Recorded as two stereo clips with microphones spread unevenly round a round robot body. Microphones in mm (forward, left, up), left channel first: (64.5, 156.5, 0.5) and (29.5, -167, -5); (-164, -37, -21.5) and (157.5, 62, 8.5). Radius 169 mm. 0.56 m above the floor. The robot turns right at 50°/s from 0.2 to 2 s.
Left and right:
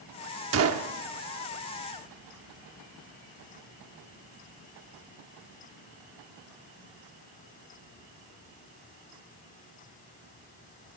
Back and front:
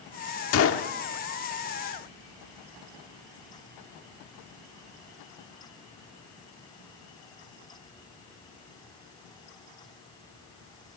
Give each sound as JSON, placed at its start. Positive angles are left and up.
{"t": 0.5, "sound": "a gunshot", "azimuth_deg": -135, "distance_m": 0.9}